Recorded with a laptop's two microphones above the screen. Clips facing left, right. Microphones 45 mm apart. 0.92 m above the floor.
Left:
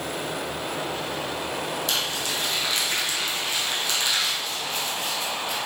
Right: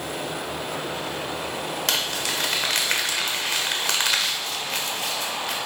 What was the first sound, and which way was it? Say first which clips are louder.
Crumpling: right 1 dB; 75° right (ahead or behind).